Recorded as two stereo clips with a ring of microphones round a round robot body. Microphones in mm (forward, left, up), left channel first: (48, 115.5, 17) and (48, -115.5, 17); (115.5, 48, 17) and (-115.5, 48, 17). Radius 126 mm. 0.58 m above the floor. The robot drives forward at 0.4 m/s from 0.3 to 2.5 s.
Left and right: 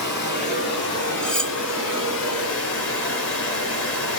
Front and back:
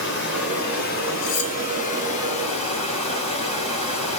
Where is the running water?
45° left, 2.5 m; by 4.2 s 65° left, 1.8 m.